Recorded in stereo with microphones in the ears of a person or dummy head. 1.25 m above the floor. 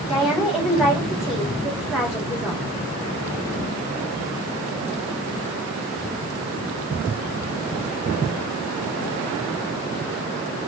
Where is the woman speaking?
5° right (ahead or behind), 3.5 m.